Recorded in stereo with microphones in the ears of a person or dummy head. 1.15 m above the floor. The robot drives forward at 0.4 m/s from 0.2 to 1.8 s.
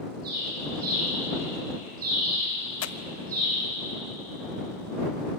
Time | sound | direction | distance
0.2 | a bird | 50° right (ahead or behind) | 8 m
2.8 | tearing paper | 75° left (ahead or behind) | 0.9 m